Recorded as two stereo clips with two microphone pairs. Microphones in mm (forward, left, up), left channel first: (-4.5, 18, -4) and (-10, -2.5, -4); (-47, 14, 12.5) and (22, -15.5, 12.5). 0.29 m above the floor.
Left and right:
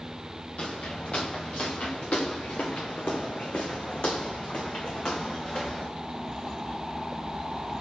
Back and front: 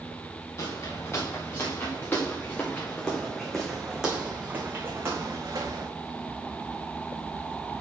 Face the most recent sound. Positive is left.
turn(degrees=20)